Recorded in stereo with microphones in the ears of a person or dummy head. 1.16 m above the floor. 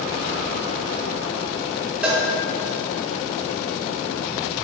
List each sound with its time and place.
2.0 s a cowbell: 5° right (ahead or behind), 1.6 m